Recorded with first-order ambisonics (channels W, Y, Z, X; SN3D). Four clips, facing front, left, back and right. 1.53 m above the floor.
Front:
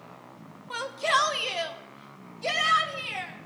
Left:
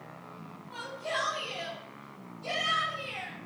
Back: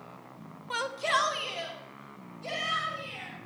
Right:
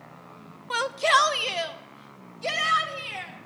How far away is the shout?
About 1.2 m.